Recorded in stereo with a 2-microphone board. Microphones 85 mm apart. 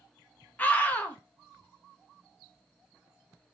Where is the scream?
15° left (ahead or behind), 0.8 m.